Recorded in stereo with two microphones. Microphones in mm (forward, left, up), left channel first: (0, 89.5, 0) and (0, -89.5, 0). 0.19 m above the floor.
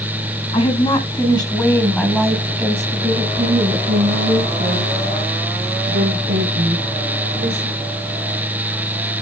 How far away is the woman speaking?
About 1.9 m.